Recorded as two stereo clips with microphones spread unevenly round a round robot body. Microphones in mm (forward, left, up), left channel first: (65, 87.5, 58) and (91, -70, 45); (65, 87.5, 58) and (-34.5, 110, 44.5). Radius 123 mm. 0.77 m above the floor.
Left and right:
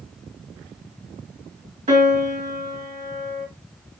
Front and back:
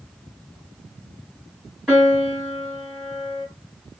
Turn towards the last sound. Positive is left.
turn(degrees=-110)